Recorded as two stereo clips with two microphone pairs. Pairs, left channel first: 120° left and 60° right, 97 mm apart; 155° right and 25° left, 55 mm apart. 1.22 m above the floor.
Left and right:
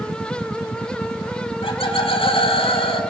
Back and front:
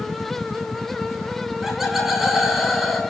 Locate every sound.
1.6 s laughter: 110° left, 5.5 m